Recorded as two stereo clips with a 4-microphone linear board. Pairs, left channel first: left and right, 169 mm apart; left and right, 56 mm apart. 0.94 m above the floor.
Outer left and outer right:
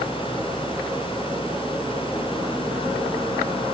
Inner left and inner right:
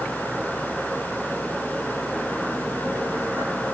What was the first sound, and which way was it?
Only background noise.